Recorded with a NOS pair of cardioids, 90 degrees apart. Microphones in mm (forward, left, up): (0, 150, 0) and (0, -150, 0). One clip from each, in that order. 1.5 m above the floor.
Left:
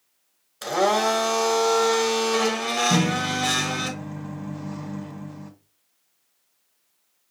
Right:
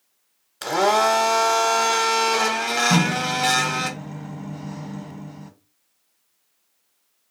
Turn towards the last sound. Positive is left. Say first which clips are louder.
# right 2 dB
turn(degrees=-15)